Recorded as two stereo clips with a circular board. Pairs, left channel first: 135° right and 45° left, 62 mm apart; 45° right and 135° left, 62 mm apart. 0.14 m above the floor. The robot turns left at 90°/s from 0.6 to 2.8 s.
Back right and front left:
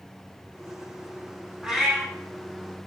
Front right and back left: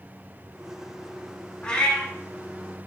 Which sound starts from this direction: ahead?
A cat meowing, at 1.6 s.